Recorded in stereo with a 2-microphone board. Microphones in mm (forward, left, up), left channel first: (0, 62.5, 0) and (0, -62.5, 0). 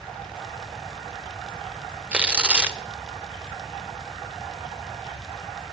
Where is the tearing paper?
10° right (ahead or behind), 0.8 m.